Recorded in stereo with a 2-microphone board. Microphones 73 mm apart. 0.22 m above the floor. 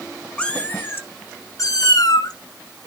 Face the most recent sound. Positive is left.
turn(degrees=65)  # may be behind; listen again after turning